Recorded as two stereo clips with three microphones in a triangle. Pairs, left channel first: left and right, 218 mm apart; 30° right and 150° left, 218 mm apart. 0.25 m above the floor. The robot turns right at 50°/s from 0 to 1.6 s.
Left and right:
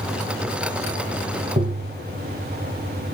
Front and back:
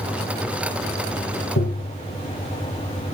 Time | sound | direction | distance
1.6 | tapping | 40° right | 2.5 m